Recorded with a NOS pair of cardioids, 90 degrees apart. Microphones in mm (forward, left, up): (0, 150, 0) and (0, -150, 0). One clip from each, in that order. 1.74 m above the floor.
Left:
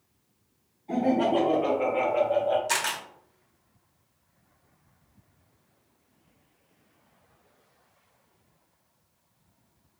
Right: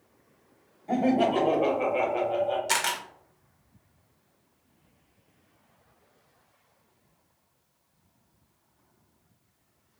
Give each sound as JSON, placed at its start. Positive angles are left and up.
{"t": 0.9, "sound": "laughter", "azimuth_deg": -50, "distance_m": 1.3}
{"t": 2.7, "sound": "a camera shutter", "azimuth_deg": -15, "distance_m": 0.7}